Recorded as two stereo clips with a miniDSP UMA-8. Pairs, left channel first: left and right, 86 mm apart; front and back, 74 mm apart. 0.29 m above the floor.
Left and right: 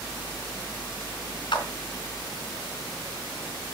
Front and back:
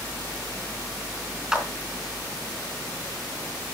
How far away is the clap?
About 3.5 m.